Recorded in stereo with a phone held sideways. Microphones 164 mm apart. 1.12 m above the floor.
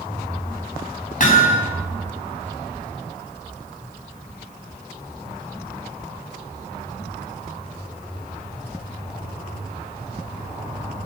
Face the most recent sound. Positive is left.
turn(degrees=55)  # may be behind; listen again after turning